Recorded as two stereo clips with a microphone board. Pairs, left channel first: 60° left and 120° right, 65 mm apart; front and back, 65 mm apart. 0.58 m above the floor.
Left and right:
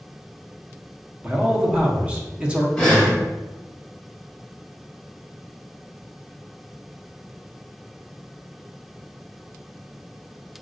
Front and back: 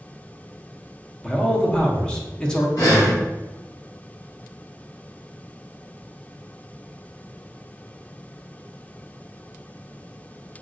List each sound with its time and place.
1.2 s a man speaking: 65° right, 0.7 m
2.8 s breathing: 15° right, 1.5 m